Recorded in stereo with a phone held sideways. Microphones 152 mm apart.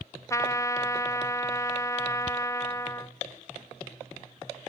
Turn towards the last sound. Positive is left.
turn(degrees=20)  # may be behind; listen again after turning